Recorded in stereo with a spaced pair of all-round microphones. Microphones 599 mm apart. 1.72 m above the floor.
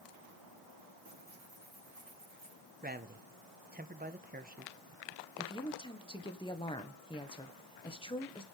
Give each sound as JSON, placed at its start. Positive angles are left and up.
{"t": 1.1, "sound": "tearing paper", "side_deg": -35, "distance_m": 6.0}
{"t": 2.8, "sound": "a man speaking", "side_deg": -15, "distance_m": 1.0}
{"t": 5.4, "sound": "a woman speaking", "side_deg": 10, "distance_m": 1.5}